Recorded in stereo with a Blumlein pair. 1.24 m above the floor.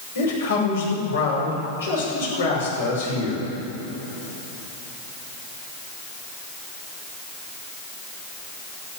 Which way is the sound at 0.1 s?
70° left.